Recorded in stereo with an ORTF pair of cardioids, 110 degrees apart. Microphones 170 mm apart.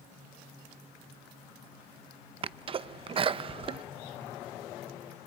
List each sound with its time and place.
2.4 s a sneeze: 35° right, 0.8 m